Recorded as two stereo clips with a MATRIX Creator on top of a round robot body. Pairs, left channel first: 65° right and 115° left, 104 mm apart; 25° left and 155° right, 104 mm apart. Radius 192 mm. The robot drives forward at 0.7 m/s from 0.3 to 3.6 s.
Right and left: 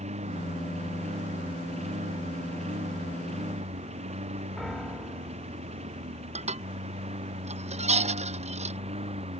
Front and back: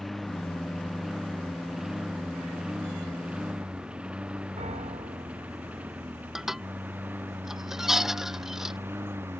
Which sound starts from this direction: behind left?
Dishes clattering, at 6.3 s.